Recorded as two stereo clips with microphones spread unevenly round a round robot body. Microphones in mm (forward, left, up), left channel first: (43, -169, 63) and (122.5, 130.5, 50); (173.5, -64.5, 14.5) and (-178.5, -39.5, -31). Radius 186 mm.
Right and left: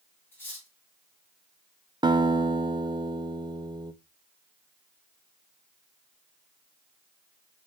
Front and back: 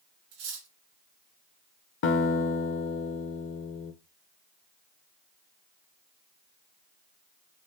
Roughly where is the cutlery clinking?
Behind.